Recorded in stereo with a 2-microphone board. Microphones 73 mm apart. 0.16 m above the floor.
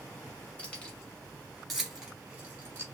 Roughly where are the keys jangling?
Centre.